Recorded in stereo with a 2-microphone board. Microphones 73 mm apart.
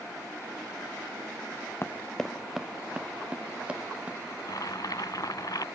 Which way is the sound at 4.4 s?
60° left (ahead or behind).